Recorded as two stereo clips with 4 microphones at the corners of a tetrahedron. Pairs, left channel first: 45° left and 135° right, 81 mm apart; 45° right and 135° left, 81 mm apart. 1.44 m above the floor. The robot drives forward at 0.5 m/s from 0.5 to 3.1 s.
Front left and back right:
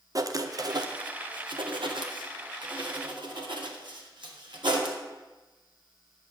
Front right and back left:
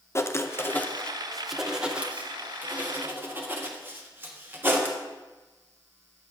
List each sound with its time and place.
0.1 s writing: 95° right, 0.6 m; by 5.0 s 160° right, 1.5 m